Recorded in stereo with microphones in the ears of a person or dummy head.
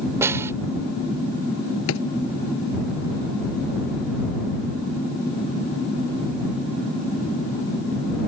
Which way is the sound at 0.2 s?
10° right (ahead or behind).